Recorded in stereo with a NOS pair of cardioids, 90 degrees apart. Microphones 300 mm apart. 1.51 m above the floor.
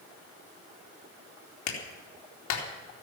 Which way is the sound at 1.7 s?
65° left.